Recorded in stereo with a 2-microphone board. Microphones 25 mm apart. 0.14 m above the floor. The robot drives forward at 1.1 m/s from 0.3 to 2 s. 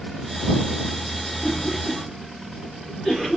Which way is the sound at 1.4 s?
10° right (ahead or behind).